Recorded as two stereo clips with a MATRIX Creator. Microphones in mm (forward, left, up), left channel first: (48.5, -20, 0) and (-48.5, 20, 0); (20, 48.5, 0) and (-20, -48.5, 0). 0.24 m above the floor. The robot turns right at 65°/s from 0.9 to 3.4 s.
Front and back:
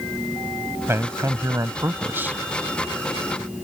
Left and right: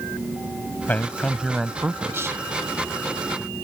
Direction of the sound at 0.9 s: 125° left.